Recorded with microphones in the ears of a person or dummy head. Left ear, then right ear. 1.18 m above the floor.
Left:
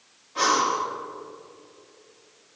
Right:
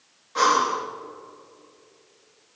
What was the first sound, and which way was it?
Breathing, 50° right (ahead or behind).